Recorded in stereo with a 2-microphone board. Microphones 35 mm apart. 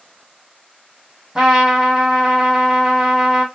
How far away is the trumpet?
About 1.0 m.